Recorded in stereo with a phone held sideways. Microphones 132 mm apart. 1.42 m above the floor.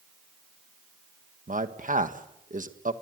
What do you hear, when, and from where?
1.5 s a man speaking: 70° right (ahead or behind), 1.5 m